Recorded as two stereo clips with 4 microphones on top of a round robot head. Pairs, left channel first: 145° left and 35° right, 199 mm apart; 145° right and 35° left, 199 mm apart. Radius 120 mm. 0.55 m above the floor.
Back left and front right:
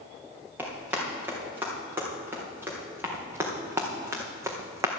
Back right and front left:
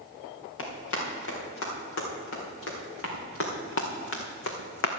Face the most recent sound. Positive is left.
turn(degrees=-115)